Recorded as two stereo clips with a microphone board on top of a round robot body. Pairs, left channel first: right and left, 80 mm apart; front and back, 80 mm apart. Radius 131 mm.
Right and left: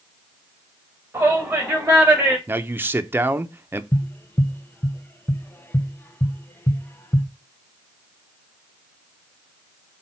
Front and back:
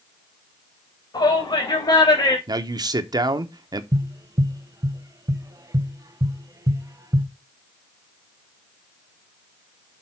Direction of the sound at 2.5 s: 150° left.